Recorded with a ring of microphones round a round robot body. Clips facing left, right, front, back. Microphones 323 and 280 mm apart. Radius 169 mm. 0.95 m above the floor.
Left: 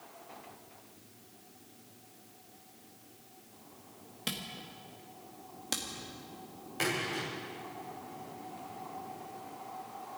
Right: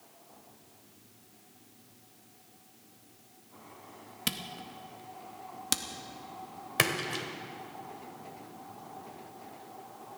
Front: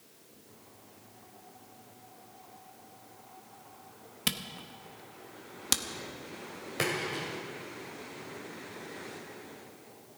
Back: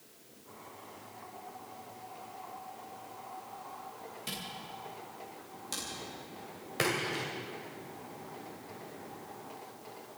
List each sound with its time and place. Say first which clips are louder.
4.3 s a camera shutter: right 2 dB, front 4 dB; 25° right, 1.0 m
6.8 s a splash: right 1 dB, even; 90° right, 2 m